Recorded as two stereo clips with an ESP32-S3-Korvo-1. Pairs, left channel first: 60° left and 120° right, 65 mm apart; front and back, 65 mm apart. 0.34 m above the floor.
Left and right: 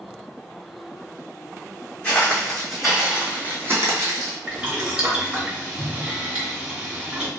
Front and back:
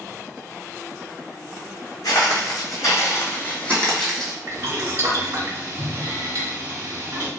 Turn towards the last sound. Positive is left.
turn(degrees=175)